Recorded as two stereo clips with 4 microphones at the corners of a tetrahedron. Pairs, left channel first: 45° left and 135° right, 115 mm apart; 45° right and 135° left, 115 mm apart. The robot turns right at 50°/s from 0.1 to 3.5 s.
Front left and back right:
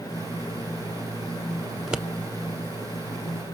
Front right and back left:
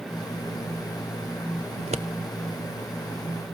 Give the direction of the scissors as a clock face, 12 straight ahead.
8 o'clock.